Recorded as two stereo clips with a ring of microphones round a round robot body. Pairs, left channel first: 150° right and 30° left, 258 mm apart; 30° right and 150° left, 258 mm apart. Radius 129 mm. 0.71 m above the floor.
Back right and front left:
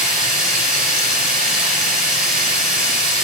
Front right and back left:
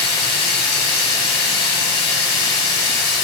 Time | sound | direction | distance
0.0 | running water | 60° right | 4.5 m